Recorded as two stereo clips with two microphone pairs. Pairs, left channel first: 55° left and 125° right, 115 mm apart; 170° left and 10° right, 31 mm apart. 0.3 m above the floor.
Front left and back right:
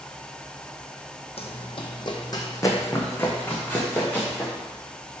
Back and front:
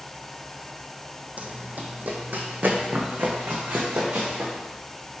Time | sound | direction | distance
1.4 | running footsteps | 30° left | 0.8 m